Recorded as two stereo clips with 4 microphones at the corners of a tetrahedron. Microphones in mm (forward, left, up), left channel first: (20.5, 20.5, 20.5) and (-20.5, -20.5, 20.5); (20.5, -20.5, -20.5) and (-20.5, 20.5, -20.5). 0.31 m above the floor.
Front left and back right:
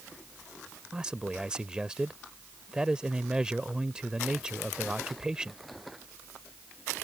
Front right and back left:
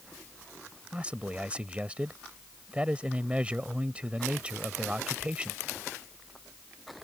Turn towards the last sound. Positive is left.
turn(degrees=165)